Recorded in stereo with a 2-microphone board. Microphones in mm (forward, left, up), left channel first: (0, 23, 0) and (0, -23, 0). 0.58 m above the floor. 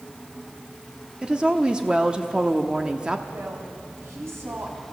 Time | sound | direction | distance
1.2 | a woman speaking | 20° right (ahead or behind) | 1.0 m
3.3 | a woman speaking | 65° right (ahead or behind) | 4 m